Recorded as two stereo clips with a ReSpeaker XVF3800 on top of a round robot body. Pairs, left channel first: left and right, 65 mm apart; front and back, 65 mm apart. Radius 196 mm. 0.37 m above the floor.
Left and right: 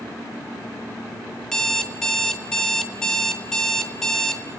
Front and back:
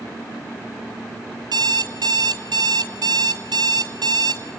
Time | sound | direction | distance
1.4 | an alarm clock | 170° left | 1.5 m